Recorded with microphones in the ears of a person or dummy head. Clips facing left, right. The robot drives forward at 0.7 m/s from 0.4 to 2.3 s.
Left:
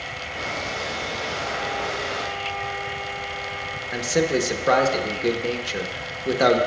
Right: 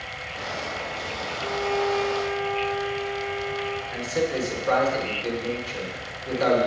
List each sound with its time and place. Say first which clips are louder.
1.4 s a violin: right 8 dB; 60° right (ahead or behind), 0.6 m; by 3.8 s 55° right (ahead or behind), 0.6 m
3.9 s a man speaking: left 5 dB; 60° left (ahead or behind), 1.1 m